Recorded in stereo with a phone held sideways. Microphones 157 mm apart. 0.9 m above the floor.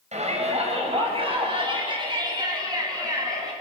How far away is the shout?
About 5.5 m.